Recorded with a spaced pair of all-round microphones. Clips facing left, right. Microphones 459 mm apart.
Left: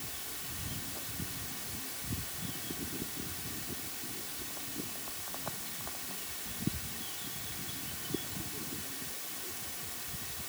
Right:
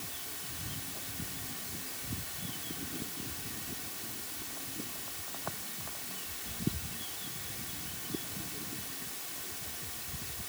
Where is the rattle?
No rattle in this recording.